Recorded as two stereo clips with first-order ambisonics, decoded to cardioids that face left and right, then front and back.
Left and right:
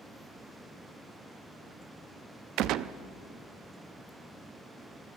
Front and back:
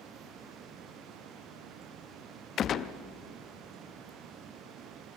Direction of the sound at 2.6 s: 55° right.